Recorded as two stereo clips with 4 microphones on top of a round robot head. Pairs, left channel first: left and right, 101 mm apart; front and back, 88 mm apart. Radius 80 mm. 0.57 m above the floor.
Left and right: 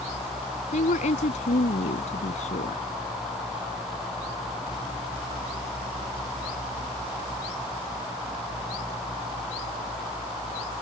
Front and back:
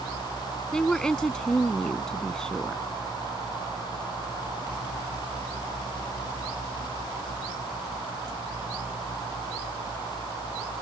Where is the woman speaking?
80° left.